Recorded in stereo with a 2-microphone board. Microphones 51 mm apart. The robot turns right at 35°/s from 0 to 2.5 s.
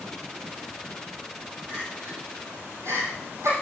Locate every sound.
1.7 s crying: 40° right (ahead or behind), 5 m; by 3.5 s 65° right (ahead or behind), 5 m